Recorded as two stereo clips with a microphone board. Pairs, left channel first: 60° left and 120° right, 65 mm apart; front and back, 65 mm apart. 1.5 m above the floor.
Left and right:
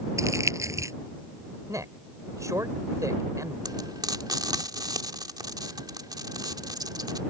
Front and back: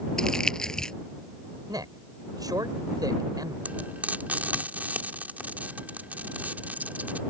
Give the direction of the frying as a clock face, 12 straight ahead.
4 o'clock.